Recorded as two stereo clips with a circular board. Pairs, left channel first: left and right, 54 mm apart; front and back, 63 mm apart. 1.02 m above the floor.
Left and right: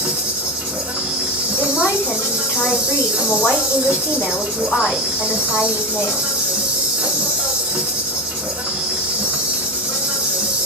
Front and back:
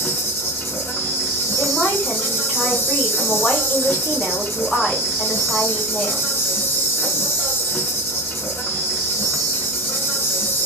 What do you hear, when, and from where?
0.0 s an insect: 25° right, 0.9 m
1.6 s a woman speaking: 65° left, 1.8 m